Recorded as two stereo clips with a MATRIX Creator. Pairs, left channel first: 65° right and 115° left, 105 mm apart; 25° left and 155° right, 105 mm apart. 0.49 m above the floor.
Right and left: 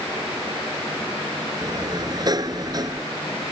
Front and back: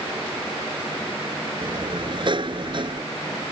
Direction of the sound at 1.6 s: 160° left.